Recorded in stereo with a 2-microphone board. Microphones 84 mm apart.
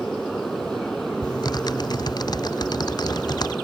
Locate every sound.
0.0 s a motorcycle: 5° left (ahead or behind)
1.2 s typing on a keyboard: 55° left (ahead or behind)